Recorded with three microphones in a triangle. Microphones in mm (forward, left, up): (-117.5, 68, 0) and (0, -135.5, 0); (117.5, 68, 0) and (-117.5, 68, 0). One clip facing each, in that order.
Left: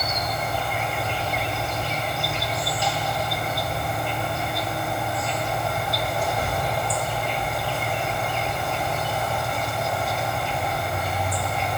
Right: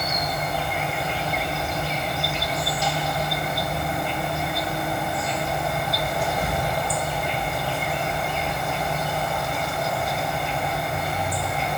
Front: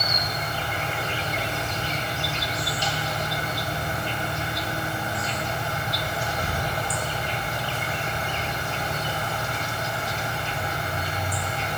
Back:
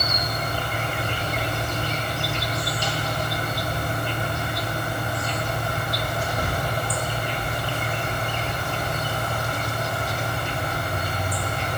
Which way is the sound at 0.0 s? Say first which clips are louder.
Right 1 dB, back 2 dB; 150° right.